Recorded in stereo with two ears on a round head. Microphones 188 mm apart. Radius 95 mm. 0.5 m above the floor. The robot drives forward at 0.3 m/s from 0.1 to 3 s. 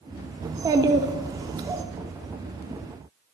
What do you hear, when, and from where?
0.4 s a child speaking: 15° right (ahead or behind), 0.6 m